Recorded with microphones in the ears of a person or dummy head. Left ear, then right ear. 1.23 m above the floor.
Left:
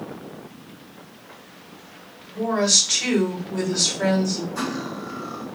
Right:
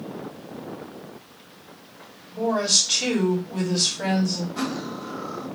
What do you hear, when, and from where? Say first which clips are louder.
2.3 s a woman speaking: left 2 dB; 20° left (ahead or behind), 2.5 m
4.5 s cutlery clinking: left 1 dB; 30° left (ahead or behind), 2.5 m